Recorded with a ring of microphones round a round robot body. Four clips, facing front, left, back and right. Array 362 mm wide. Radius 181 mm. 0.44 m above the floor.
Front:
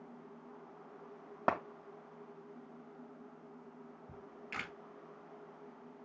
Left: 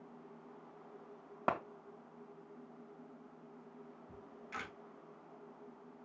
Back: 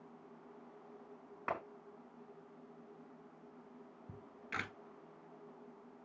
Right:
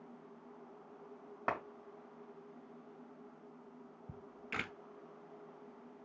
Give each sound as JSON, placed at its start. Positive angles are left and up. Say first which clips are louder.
{"t": 1.5, "sound": "a clap", "louder": "left 2 dB, front 7 dB", "azimuth_deg": 25, "distance_m": 2.0}
{"t": 4.1, "sound": "a camera shutter", "louder": "right 3 dB, back 2 dB", "azimuth_deg": -110, "distance_m": 1.5}